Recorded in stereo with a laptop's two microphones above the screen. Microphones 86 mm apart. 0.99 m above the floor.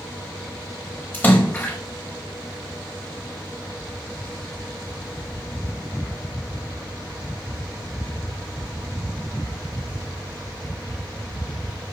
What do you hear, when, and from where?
1.1 s a splash: 25° left (ahead or behind), 5.5 m